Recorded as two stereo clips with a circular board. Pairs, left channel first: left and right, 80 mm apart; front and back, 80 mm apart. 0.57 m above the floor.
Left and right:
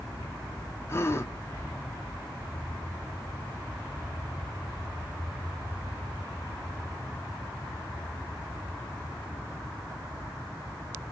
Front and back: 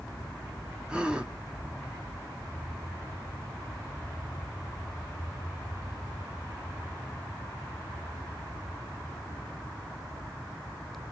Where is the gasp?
110° left, 0.7 m.